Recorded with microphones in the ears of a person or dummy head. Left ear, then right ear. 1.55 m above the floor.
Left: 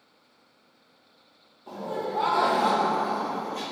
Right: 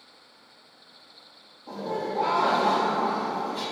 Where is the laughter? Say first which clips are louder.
Right 1 dB; 35° left (ahead or behind), 0.8 m; by 3.6 s 40° left (ahead or behind), 0.6 m.